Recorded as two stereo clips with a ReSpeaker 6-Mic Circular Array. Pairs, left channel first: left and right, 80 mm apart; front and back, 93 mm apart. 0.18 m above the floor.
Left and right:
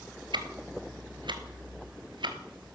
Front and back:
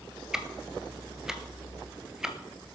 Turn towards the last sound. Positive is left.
turn(degrees=-95)